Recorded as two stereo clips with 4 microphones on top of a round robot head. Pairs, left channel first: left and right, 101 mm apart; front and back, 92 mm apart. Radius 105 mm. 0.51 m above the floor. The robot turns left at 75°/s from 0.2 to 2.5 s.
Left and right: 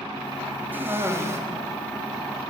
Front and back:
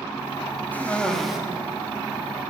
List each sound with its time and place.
0.7 s a cough: 45° right, 0.7 m; by 1.4 s 95° right, 0.7 m